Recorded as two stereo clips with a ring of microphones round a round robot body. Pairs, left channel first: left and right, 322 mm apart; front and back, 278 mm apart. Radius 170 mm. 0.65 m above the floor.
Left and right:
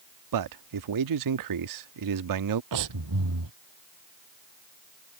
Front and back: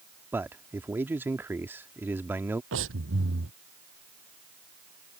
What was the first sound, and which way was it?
A man speaking, 95° right.